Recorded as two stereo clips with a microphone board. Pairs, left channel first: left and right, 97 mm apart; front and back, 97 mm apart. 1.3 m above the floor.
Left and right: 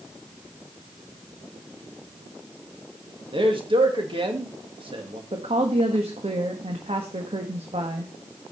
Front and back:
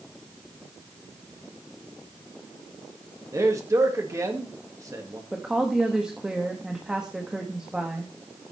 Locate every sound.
3.3 s a man speaking: 120° right, 2.5 m
5.3 s a woman speaking: 100° right, 1.5 m